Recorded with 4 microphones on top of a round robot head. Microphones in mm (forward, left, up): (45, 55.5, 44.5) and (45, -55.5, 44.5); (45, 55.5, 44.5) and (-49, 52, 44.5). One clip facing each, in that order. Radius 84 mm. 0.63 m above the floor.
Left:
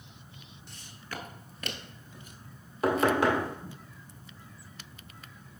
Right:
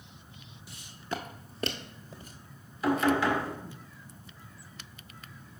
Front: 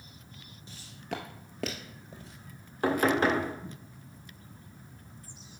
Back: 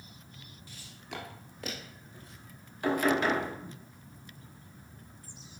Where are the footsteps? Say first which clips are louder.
Right 6 dB, front 6 dB; 15° right, 0.6 m; by 2.3 s 45° right, 1.2 m.